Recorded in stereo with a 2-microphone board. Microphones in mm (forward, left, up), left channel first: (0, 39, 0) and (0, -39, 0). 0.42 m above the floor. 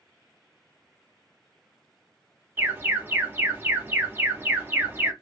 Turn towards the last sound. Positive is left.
turn(degrees=-30)  # may be behind; listen again after turning